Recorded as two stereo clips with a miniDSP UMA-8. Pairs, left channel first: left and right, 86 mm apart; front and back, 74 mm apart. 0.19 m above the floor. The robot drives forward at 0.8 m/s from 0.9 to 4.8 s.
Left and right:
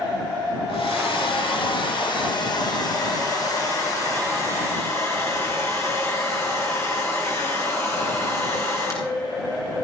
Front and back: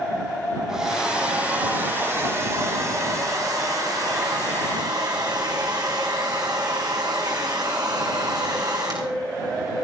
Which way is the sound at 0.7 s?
100° left.